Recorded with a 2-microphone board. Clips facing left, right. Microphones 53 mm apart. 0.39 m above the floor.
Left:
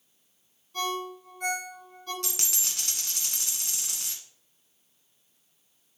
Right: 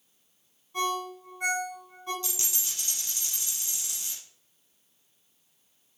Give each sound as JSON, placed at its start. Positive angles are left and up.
{"t": 0.7, "sound": "a ringtone", "side_deg": -20, "distance_m": 3.0}
{"t": 2.2, "sound": "a dropped coin", "side_deg": 60, "distance_m": 1.6}